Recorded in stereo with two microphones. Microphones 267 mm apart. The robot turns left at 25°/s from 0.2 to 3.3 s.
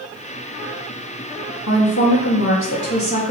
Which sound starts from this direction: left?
A woman speaking, at 1.7 s.